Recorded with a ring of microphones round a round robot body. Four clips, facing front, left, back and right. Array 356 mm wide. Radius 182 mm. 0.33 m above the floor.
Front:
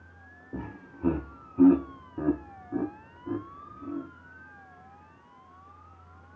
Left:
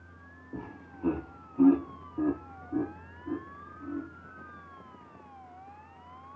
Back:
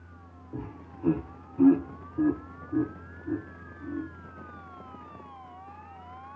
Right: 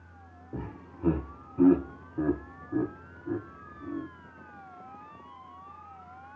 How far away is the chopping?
I don't hear chopping.